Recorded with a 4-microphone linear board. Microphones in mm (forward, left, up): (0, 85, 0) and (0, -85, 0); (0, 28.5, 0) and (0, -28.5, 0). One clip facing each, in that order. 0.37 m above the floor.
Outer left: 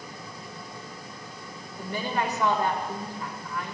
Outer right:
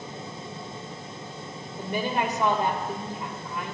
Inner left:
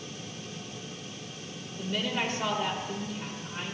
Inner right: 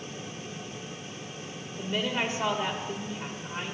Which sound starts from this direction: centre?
A woman speaking, at 1.8 s.